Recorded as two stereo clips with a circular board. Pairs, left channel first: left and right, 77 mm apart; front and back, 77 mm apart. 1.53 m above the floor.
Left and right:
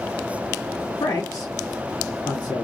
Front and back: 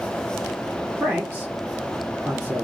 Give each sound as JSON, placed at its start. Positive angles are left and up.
{"t": 1.0, "sound": "a man speaking", "azimuth_deg": 120, "distance_m": 1.3}